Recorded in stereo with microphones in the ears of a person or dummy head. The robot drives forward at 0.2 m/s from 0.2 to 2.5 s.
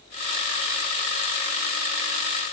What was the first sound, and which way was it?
Only background noise.